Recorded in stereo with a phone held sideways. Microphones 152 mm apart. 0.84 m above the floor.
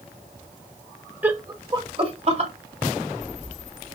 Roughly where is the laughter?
Centre.